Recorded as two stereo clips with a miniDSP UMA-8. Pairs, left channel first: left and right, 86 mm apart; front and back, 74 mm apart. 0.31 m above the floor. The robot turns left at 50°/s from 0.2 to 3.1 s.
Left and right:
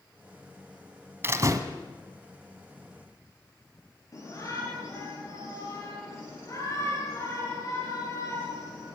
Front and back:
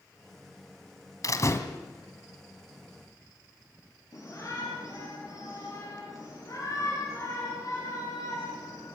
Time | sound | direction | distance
1.2 | a door slam | 30° right | 1.5 m
4.1 | a shout | 40° left | 6.5 m